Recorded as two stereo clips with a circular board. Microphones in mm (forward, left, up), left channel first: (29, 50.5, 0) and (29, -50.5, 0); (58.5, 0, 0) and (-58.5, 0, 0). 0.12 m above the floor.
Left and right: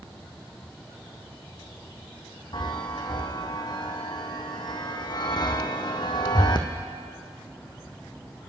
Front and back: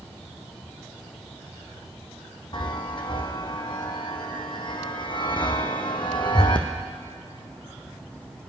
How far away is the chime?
About 1.0 m.